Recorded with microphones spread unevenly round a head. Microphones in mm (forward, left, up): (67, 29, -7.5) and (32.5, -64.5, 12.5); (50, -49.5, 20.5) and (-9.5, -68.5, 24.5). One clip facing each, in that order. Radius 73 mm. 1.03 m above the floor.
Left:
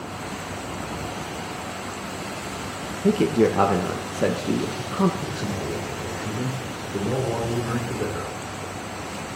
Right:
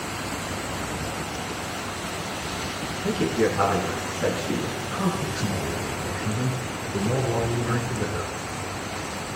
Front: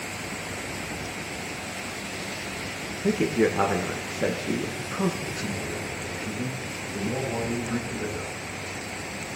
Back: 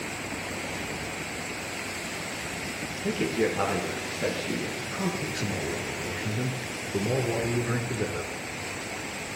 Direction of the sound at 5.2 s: 145° left.